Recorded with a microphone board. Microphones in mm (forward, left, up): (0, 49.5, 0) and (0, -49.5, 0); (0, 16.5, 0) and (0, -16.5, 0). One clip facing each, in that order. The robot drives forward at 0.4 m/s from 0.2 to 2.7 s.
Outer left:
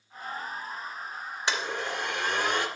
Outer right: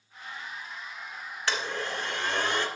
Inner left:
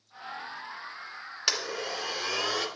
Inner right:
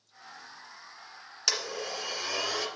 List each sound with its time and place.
1.5 s a blender: 20° left (ahead or behind), 1.9 m; by 2.7 s 15° left (ahead or behind), 2.5 m